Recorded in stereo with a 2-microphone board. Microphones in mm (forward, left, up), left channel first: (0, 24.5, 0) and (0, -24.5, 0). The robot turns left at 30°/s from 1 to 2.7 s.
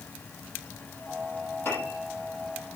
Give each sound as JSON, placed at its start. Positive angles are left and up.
{"t": 1.6, "sound": "a piano", "side_deg": 55, "distance_m": 8.5}